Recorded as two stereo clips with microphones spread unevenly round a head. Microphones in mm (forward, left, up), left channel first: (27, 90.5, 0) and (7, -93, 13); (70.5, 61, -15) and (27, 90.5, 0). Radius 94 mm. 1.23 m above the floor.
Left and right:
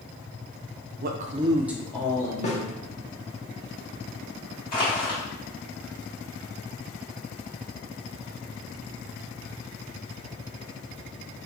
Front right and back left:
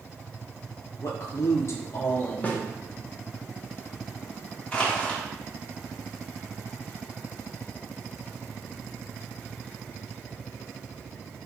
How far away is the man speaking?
About 0.5 m.